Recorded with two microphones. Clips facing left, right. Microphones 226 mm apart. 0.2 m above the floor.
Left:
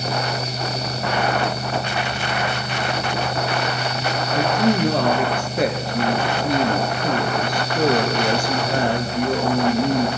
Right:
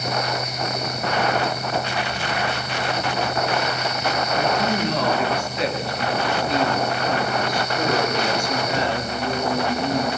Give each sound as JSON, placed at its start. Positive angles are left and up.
{"t": 4.3, "sound": "a woman speaking", "side_deg": 55, "distance_m": 2.5}